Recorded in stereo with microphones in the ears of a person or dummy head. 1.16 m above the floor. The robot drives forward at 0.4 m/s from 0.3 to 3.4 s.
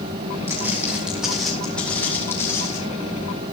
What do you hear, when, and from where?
0.5 s footsteps: 10° right (ahead or behind), 3 m; by 2.8 s 20° left (ahead or behind), 3.5 m